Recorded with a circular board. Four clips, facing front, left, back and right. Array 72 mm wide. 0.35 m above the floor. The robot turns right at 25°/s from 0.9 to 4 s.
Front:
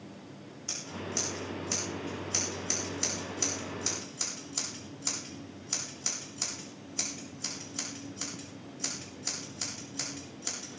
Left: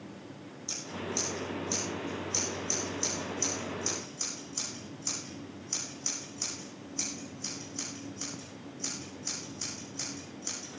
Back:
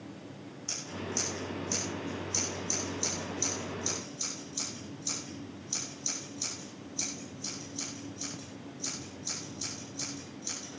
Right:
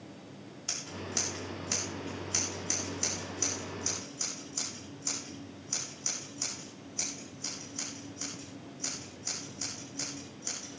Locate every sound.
0.7 s scissors: 80° right, 8 m; by 10.8 s 5° right, 8 m